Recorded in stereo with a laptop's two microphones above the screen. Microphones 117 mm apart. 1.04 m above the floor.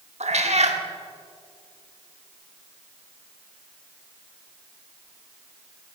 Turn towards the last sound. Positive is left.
turn(degrees=-70)  # may be behind; listen again after turning